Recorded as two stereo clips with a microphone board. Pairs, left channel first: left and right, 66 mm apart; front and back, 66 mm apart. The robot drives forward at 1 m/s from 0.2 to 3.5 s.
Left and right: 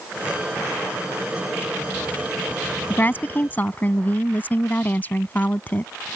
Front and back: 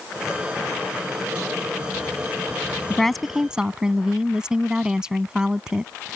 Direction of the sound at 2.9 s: 70° left.